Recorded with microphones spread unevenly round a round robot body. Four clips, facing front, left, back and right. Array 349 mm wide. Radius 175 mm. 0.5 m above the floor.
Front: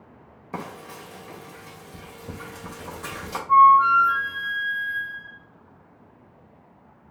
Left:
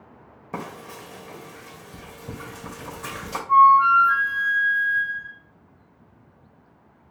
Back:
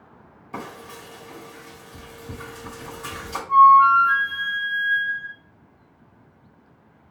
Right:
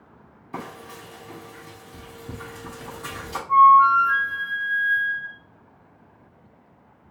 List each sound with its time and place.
0.5 s frying: 65° left, 1.7 m
3.5 s a flute: 60° left, 1.9 m